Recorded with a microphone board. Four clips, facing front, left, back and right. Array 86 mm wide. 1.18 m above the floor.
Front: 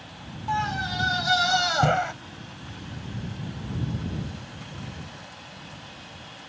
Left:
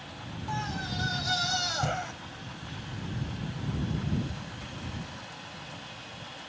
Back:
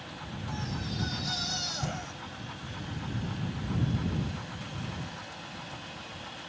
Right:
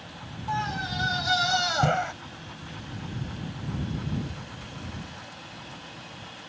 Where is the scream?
25° right; by 2.1 s 30° right.